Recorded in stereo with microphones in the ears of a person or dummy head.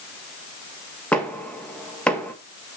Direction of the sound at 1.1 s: Centre (ahead or behind).